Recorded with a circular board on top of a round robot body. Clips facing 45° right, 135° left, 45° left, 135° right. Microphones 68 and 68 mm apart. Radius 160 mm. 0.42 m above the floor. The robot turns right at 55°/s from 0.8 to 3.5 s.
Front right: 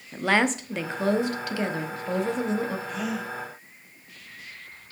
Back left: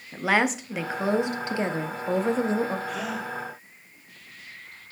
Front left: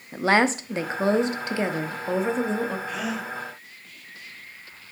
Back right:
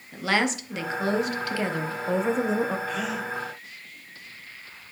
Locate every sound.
0.1 s a woman speaking: 55° left, 1.1 m; by 2.8 s 165° left, 1.1 m
2.9 s a gasp: 115° left, 3 m; by 3.3 s 140° left, 3 m